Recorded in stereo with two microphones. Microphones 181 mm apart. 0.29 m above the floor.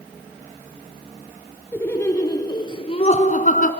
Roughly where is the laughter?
Centre.